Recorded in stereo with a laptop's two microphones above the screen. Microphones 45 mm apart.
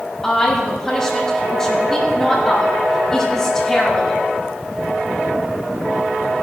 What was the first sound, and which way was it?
A woman speaking, 10° left (ahead or behind).